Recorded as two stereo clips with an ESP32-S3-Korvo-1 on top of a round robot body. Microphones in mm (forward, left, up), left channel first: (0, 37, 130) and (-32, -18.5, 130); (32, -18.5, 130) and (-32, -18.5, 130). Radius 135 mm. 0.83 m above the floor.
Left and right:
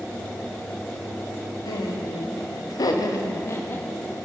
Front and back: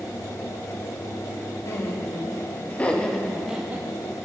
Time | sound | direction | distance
1.6 | laughter | 45° left | 1.7 m